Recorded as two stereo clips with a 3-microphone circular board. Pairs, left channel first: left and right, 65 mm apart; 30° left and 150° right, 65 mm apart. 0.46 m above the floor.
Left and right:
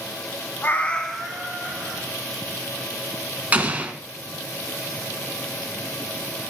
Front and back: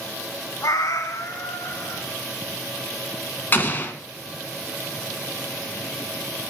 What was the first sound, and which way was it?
A cat meowing, 40° left.